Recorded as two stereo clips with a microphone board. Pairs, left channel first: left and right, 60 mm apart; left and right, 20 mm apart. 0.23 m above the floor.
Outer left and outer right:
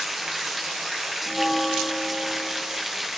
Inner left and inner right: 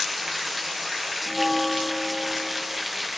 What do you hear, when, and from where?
0.0 s running water: centre (ahead or behind)
1.3 s a bell: 10° left (ahead or behind)